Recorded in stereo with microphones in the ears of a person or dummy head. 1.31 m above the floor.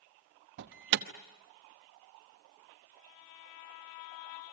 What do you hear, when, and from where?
0.6 s an alarm: 60° right (ahead or behind), 0.9 m